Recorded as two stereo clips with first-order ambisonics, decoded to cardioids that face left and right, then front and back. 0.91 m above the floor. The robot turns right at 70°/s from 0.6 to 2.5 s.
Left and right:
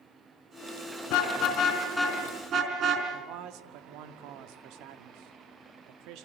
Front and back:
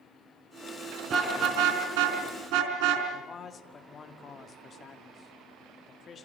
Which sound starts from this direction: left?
A car horn, at 1.1 s.